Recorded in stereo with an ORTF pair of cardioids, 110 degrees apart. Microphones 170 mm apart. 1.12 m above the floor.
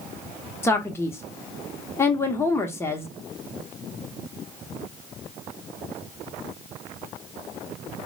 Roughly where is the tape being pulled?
I don't hear tape being pulled.